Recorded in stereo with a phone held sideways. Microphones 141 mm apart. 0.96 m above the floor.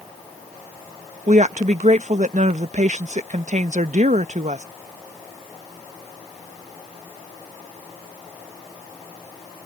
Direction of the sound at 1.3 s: 60° right (ahead or behind).